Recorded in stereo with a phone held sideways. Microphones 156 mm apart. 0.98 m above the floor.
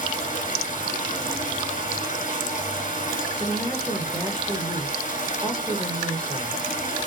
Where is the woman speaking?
15° left (ahead or behind), 0.9 m.